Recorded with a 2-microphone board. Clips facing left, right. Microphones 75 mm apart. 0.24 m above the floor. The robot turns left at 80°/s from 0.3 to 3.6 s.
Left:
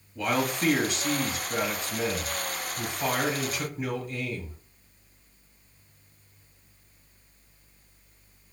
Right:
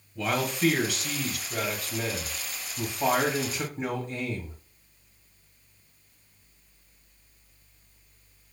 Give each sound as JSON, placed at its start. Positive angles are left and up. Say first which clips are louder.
{"t": 0.1, "sound": "a man speaking", "louder": "left 1 dB", "azimuth_deg": 170, "distance_m": 1.4}